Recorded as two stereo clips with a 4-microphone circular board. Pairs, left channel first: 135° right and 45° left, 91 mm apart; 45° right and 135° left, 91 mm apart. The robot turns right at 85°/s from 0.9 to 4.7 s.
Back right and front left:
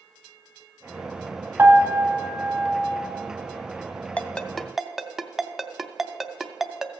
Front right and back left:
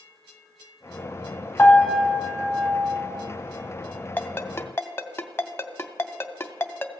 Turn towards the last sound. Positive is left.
turn(degrees=-35)